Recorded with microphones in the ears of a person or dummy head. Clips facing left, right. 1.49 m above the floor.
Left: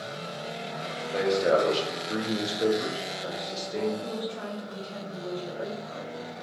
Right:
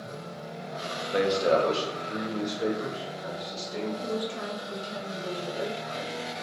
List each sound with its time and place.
1.1 s a man speaking: 15° right (ahead or behind), 0.6 m; by 3.9 s 60° left (ahead or behind), 1.6 m
4.0 s a woman speaking: 20° right (ahead or behind), 0.8 m